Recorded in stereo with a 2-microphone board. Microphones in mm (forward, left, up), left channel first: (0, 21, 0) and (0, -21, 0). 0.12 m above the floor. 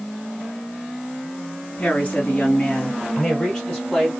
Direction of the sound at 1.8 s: 30° left (ahead or behind).